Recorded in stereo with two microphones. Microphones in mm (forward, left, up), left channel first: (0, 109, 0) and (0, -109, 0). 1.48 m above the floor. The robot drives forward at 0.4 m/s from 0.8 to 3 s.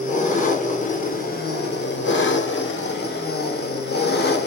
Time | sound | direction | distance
0.0 | an engine running | 35° left (ahead or behind) | 0.9 m